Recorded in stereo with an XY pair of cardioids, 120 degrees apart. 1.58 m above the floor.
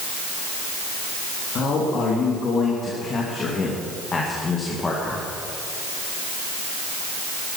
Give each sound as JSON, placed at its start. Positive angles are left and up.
{"t": 1.6, "sound": "a man speaking", "azimuth_deg": 55, "distance_m": 3.5}